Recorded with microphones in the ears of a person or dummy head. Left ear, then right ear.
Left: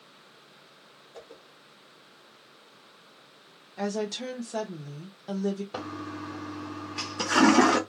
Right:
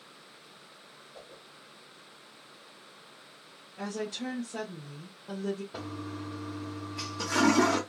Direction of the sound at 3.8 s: 65° left (ahead or behind).